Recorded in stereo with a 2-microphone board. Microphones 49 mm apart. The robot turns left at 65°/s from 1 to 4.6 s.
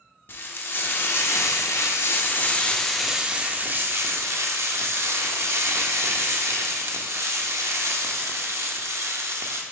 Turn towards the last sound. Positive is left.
turn(degrees=-100)